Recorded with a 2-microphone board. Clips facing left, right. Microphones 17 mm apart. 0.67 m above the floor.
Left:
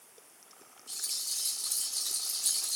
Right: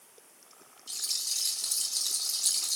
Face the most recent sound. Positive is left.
turn(degrees=-25)  # may be behind; listen again after turning